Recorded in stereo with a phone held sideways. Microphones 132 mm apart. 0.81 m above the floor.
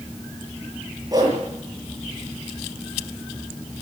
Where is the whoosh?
30° right (ahead or behind), 7.5 m.